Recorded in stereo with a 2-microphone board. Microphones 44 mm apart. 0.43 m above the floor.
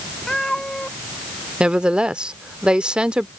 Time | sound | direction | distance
0.3 | a cat meowing | 15° left (ahead or behind) | ?
1.6 | a woman speaking | 25° right (ahead or behind) | ?